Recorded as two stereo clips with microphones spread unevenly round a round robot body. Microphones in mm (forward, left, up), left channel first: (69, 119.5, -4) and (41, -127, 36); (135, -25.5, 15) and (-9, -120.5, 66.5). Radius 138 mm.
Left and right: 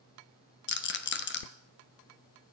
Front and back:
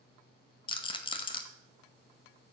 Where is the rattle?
70° left, 1.1 m.